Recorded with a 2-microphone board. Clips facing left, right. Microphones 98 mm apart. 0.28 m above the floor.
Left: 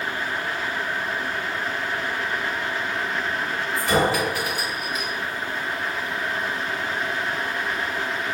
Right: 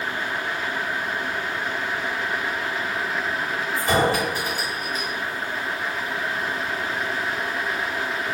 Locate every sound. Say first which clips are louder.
3.8 s a clink: even; 40° right (ahead or behind), 1.2 m